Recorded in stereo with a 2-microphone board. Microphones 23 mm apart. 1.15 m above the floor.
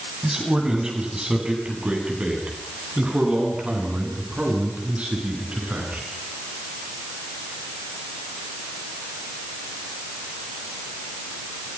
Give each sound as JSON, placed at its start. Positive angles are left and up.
{"t": 0.2, "sound": "a man speaking", "side_deg": -30, "distance_m": 9.0}